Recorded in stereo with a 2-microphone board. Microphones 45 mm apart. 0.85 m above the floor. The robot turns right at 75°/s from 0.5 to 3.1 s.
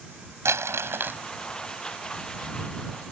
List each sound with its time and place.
0.5 s crumpling: 95° right; by 1.2 s 45° right